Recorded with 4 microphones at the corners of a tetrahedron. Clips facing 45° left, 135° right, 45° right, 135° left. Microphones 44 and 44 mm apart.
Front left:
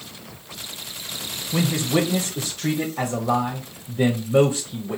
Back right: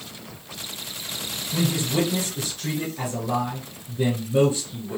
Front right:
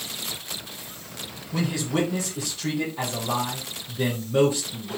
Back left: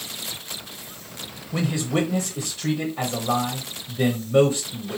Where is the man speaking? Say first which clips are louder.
Front left 3 dB, back left 1 dB; 65° left, 0.7 m.